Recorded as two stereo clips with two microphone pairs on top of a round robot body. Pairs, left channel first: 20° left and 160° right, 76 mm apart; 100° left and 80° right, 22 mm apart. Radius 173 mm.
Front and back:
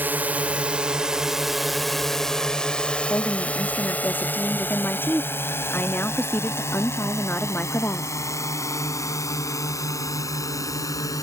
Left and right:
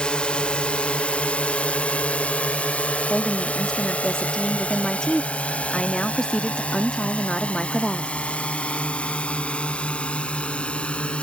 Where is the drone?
140° left; by 11.2 s 65° left.